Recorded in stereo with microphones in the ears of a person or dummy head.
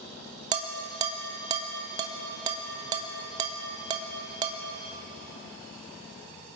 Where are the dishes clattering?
25° right (ahead or behind), 0.8 m.